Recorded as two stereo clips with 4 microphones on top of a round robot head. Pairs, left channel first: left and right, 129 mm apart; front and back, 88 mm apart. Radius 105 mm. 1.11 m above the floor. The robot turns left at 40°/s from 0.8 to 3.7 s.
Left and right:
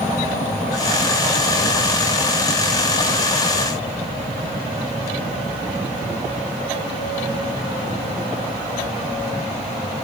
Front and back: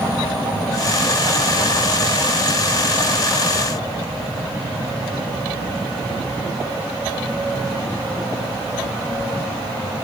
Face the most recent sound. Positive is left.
No sound to turn to.